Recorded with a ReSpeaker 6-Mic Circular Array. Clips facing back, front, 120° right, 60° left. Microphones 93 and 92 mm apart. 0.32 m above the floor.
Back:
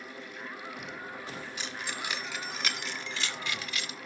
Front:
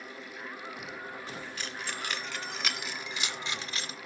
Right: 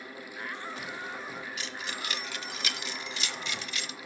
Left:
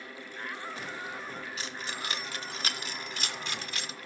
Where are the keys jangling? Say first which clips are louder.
Even, even; 110° left, 1.4 m; by 4.0 s 35° left, 0.9 m.